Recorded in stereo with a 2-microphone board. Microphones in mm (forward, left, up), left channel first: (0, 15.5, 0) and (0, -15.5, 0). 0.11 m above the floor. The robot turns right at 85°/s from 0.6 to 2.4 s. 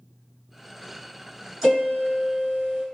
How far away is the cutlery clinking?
No cutlery clinking in this recording.